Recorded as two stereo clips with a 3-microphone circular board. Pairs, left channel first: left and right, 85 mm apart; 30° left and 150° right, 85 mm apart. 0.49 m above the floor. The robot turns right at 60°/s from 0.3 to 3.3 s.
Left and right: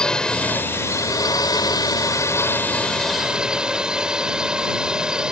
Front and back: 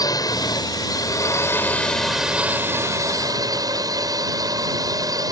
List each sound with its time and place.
0.0 s a drone: 10° left; by 5.3 s 170° right